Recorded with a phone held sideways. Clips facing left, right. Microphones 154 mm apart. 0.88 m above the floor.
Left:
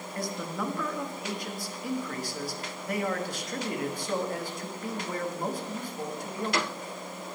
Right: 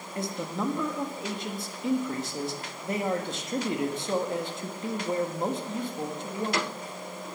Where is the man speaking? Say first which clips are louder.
Right 2 dB; 25° right (ahead or behind), 1.2 m.